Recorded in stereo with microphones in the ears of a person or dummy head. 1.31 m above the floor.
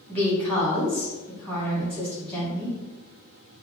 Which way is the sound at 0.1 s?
5° left (ahead or behind).